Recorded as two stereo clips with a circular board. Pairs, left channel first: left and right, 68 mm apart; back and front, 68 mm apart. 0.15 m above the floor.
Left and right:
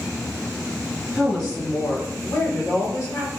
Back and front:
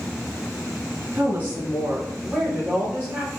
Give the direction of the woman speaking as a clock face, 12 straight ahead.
11 o'clock.